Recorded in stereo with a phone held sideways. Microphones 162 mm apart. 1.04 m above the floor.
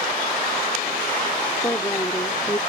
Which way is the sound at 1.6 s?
20° left (ahead or behind).